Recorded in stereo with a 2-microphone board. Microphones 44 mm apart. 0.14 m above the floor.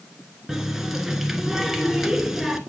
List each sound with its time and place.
0.5 s a running tap: 10° right (ahead or behind), 1.1 m